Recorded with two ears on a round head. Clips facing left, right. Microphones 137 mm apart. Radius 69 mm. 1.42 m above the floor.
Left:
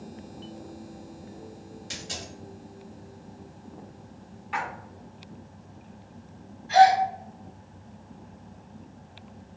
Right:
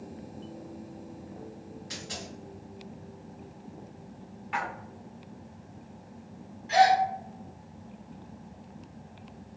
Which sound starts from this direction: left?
A dropped coin, at 1.9 s.